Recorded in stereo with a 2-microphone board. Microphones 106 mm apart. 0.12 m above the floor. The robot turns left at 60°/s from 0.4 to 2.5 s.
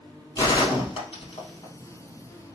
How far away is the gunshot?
About 2.5 m.